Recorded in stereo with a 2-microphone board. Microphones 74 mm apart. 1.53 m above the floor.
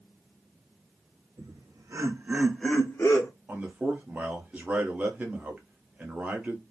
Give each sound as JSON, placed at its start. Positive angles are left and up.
{"t": 1.4, "sound": "laughter", "side_deg": -60, "distance_m": 1.4}
{"t": 3.5, "sound": "a man speaking", "side_deg": -20, "distance_m": 0.9}